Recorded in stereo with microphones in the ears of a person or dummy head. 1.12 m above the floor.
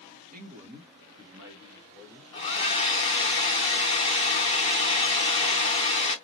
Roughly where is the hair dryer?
Left.